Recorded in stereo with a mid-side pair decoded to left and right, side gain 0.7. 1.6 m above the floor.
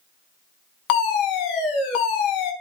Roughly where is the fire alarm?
Left.